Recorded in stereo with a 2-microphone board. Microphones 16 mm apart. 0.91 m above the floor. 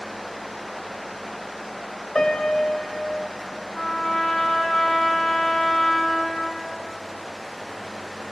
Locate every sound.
2.1 s a piano: 65° left (ahead or behind), 3.5 m
3.7 s a trumpet: 75° left (ahead or behind), 3.5 m